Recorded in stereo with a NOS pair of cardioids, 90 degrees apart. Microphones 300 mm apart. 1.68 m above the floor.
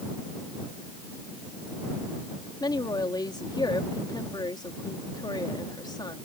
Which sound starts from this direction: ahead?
A woman speaking, at 2.6 s.